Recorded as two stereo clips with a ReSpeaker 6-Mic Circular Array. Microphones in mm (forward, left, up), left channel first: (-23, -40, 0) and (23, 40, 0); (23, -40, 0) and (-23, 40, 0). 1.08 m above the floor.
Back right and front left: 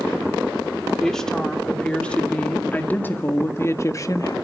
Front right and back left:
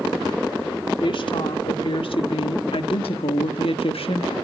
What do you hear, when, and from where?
1.0 s a woman speaking: 35° right, 2.5 m; by 4.3 s 70° right, 1.4 m